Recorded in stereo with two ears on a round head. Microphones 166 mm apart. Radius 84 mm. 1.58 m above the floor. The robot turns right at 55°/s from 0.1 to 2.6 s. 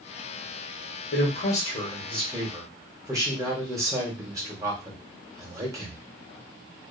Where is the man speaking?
115° left, 1.1 m; by 6.0 s 160° right, 1.1 m.